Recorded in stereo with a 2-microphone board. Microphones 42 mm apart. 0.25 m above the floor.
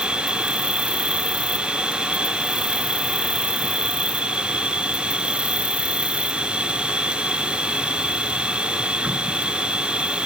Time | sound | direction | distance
0.0 | an insect | 30° right (ahead or behind) | ?